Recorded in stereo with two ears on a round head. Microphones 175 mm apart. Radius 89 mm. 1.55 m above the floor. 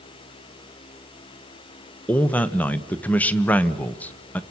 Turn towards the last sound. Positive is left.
turn(degrees=5)  # may be behind; listen again after turning